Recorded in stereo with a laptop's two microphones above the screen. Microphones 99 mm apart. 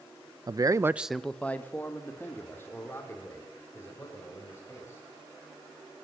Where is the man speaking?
40° right (ahead or behind), 0.7 m; by 5.0 s 25° left (ahead or behind), 6.5 m.